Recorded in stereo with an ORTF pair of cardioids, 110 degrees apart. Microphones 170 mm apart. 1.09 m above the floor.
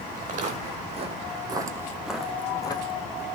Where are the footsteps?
50° right, 3.5 m; by 3.2 s 50° left, 2 m.